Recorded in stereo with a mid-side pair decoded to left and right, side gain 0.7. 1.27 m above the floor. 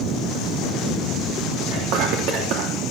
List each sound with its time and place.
1.7 s whispering: 70° right, 3 m